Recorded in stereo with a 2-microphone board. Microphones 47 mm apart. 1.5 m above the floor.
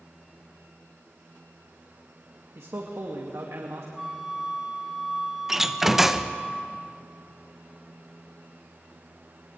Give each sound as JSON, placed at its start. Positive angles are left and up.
{"t": 2.5, "sound": "a man speaking", "side_deg": -85, "distance_m": 2.0}
{"t": 4.0, "sound": "a flute", "side_deg": -10, "distance_m": 2.5}
{"t": 5.5, "sound": "a door slam", "side_deg": -10, "distance_m": 0.8}